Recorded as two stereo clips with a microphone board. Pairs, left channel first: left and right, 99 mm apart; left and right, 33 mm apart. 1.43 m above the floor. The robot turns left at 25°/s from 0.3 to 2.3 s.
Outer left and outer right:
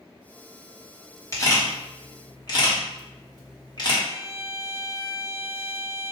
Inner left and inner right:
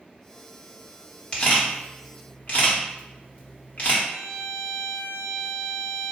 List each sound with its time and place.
1.3 s a camera shutter: 30° left (ahead or behind), 1.2 m; by 4.0 s 45° left (ahead or behind), 1.2 m
4.0 s a violin: 50° left (ahead or behind), 1.7 m